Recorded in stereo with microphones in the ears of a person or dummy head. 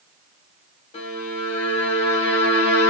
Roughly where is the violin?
Left.